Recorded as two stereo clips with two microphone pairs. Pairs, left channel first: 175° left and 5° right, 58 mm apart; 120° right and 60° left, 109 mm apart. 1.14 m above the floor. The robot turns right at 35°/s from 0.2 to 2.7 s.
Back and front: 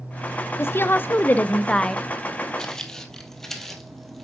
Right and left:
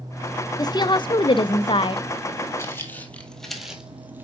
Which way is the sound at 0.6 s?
165° right.